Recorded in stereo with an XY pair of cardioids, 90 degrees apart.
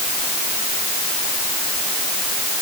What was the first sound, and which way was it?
Only background noise.